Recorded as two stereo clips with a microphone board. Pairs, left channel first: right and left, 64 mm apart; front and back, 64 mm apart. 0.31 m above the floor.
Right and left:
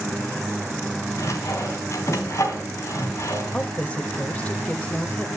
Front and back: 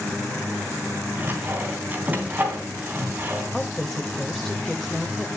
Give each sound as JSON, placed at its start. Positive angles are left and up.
{"t": 1.2, "sound": "sawing", "azimuth_deg": -120, "distance_m": 3.0}
{"t": 3.5, "sound": "a woman speaking", "azimuth_deg": -80, "distance_m": 1.5}